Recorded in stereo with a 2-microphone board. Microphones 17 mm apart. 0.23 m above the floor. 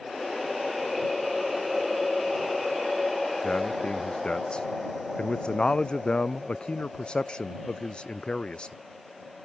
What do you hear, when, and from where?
3.4 s a man speaking: 60° left (ahead or behind)